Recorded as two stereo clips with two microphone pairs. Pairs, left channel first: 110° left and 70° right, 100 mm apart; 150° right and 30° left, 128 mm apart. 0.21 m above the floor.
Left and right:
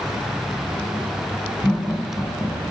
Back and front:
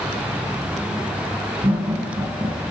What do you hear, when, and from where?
1.6 s laughter: 10° left, 1.4 m